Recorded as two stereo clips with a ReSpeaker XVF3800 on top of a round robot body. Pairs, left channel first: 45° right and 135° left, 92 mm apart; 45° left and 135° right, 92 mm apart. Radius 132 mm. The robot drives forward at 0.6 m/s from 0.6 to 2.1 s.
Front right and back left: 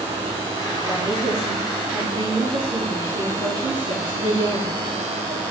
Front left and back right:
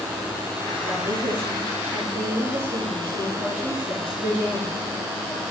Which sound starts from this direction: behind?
A woman speaking, at 0.8 s.